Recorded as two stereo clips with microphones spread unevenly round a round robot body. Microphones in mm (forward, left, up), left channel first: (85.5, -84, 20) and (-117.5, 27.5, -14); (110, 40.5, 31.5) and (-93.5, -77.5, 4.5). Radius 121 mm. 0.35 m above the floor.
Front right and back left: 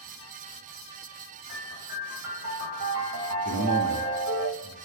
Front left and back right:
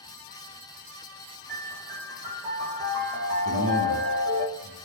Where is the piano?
120° left, 4.5 m.